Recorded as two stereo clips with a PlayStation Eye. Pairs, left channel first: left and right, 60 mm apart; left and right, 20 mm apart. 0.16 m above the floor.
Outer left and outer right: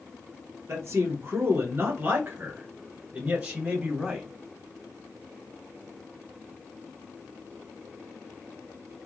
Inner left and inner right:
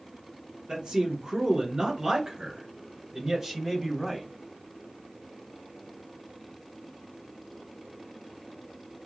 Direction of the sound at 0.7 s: 45° right (ahead or behind).